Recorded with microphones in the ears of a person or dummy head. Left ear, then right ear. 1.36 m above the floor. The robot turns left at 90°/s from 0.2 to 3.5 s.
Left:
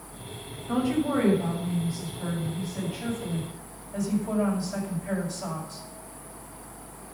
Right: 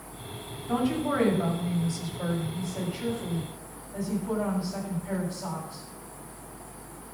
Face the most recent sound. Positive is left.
turn(degrees=130)